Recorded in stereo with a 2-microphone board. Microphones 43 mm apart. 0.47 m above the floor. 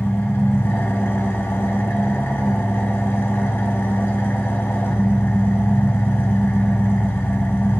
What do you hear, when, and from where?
0.0 s an engine running: 70° left (ahead or behind), 1.0 m